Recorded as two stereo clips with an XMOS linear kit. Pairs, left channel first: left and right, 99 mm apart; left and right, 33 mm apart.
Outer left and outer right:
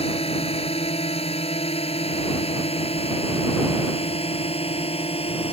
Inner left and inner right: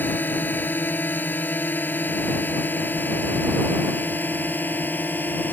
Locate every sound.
0.0 s a drone: 75° left (ahead or behind)